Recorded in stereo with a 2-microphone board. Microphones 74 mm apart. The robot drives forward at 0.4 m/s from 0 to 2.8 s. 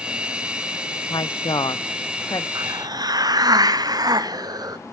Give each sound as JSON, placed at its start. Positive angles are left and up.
{"t": 1.1, "sound": "a woman speaking", "side_deg": 70, "distance_m": 0.7}
{"t": 2.5, "sound": "a hiss", "side_deg": -70, "distance_m": 0.6}